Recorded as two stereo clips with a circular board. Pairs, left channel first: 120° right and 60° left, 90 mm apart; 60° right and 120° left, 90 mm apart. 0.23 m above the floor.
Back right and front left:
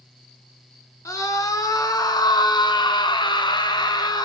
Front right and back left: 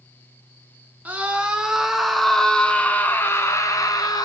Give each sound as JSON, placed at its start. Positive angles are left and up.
{"t": 1.1, "sound": "a scream", "azimuth_deg": -165, "distance_m": 3.0}